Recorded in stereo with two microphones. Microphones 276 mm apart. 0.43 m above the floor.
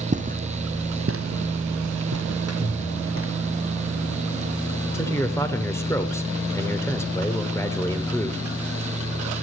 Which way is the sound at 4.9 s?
10° left (ahead or behind).